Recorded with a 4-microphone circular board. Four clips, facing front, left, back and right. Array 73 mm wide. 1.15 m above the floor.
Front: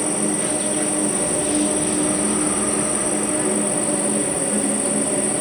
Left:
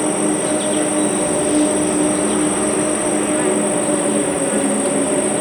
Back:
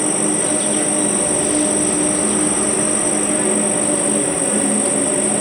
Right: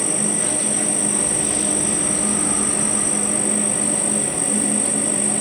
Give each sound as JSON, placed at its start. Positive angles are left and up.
{"t": 0.0, "sound": "an insect", "azimuth_deg": 105, "distance_m": 1.3}